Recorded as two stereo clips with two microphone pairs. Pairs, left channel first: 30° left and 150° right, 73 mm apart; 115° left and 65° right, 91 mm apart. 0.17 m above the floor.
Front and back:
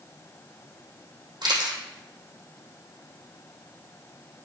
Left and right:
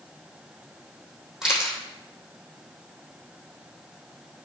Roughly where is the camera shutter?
Behind right.